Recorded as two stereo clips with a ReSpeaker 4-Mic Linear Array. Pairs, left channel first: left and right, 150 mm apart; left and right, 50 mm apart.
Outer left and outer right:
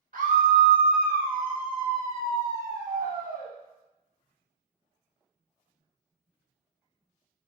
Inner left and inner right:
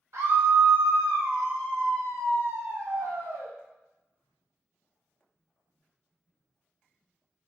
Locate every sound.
0.1 s a scream: 65° right (ahead or behind), 0.7 m